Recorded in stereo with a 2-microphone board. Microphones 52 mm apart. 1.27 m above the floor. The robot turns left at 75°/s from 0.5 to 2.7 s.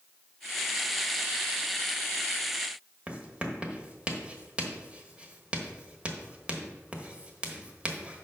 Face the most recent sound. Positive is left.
turn(degrees=-25)  # may be behind; listen again after turning